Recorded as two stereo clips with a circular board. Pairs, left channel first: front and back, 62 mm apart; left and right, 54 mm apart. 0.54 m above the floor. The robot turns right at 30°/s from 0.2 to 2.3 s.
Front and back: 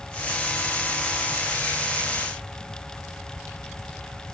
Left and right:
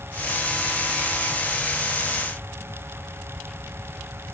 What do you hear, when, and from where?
Only background noise.